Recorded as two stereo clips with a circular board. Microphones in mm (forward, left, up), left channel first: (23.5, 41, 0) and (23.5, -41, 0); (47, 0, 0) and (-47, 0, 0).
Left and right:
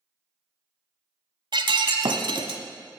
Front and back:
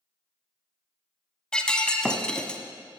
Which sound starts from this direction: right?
Breaking glass, at 1.5 s.